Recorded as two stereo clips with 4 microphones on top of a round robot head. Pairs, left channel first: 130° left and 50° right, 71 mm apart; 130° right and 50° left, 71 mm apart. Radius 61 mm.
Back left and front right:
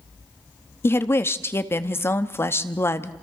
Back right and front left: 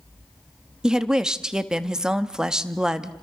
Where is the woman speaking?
120° left, 1.0 m.